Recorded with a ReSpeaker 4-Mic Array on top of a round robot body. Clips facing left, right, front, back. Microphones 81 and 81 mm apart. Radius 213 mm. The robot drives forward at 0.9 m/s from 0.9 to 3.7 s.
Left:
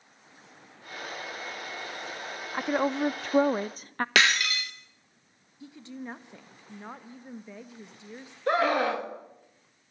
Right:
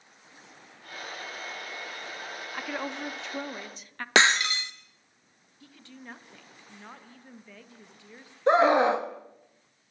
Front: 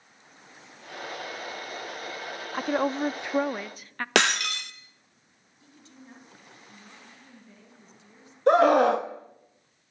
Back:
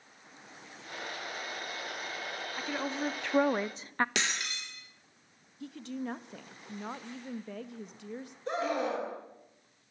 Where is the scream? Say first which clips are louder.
Right 5 dB, front 14 dB; 25° right, 1.9 m.